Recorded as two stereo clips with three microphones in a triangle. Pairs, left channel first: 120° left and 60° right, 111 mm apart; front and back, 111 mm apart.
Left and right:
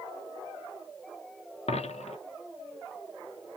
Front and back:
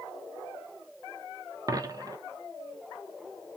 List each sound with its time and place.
1.7 s a dropped coin: 125° left, 0.8 m